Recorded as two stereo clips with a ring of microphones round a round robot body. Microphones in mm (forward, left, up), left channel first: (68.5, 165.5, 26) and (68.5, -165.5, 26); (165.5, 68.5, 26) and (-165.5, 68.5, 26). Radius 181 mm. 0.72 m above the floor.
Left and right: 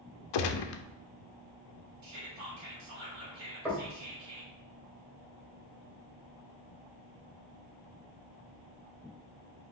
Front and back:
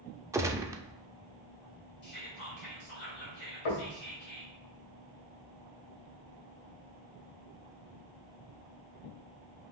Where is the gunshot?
100° left, 0.5 m.